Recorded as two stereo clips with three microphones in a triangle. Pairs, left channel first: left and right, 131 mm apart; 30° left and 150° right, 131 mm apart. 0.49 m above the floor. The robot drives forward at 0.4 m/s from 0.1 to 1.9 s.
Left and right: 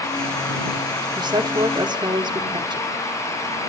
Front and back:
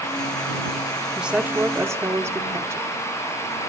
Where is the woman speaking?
70° right, 1.1 m; by 2.9 s 95° right, 1.0 m.